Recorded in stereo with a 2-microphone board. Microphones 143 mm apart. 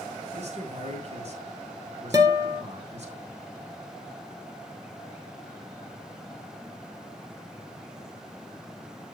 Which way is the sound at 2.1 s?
25° right (ahead or behind).